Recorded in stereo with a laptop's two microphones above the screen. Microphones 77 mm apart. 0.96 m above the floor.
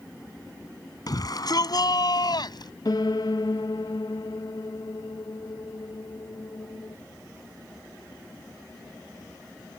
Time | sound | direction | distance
1.1 | a shout | 55° left (ahead or behind) | ?
2.9 | a piano | 55° left (ahead or behind) | ?